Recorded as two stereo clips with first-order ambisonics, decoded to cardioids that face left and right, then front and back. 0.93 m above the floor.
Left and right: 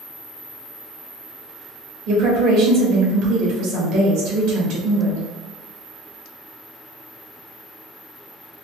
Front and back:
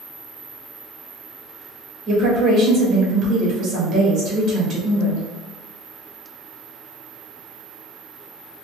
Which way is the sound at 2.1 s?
120° right.